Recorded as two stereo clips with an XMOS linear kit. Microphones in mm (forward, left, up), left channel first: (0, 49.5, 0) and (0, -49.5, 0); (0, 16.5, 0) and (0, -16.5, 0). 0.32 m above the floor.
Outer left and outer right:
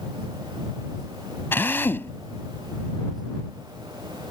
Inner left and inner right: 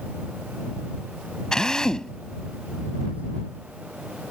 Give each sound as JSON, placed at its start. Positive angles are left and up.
{"t": 1.5, "sound": "a drill", "side_deg": 25}